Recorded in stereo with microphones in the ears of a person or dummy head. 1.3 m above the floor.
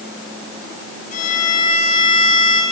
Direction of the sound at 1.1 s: 50° left (ahead or behind).